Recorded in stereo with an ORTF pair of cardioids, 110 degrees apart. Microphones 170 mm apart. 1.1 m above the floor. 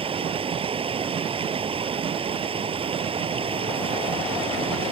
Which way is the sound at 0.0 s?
35° right.